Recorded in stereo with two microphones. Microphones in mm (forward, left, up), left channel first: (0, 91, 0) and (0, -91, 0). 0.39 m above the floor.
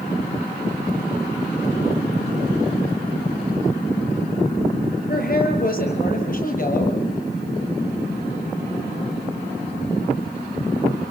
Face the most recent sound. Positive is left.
turn(degrees=50)  # may be behind; listen again after turning